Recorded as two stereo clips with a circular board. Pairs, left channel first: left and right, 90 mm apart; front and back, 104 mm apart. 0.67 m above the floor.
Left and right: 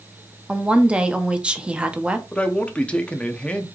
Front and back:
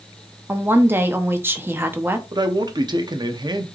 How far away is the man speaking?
About 0.6 m.